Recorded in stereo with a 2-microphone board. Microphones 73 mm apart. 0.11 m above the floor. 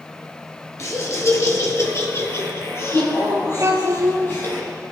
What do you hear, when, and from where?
0.8 s laughter: 40° left (ahead or behind), 1.9 m; by 4.6 s 30° left (ahead or behind), 4 m
3.6 s a child speaking: 40° right (ahead or behind), 1.5 m